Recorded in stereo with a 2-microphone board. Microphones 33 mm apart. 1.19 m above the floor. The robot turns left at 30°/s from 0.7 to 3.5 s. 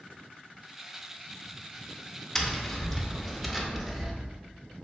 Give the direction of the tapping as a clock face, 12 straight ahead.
11 o'clock.